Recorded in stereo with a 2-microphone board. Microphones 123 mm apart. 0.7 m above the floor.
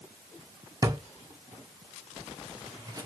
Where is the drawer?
30° right (ahead or behind), 0.5 m.